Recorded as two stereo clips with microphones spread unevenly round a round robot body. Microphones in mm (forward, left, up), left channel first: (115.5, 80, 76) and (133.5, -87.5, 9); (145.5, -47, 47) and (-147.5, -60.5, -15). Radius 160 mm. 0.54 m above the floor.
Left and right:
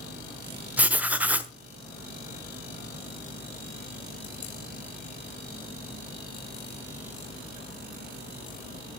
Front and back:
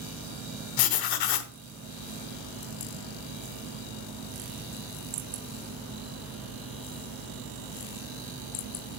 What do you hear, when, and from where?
0.8 s writing: 5° right, 1.0 m